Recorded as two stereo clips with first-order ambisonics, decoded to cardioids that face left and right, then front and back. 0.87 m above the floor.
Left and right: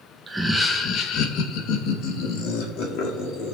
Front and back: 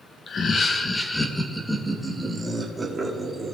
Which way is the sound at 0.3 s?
15° right.